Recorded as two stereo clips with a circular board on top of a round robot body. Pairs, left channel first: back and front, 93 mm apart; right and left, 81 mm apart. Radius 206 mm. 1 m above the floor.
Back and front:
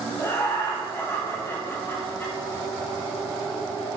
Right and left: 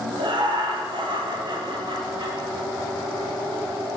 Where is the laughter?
115° left, 2 m.